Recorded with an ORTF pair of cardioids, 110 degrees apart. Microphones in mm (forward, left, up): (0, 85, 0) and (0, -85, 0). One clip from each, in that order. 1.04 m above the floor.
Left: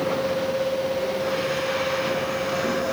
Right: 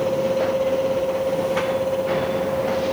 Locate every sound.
0.0 s a fan: 25° right